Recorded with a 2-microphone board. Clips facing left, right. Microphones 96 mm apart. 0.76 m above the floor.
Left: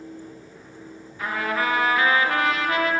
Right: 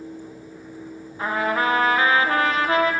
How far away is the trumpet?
About 0.7 m.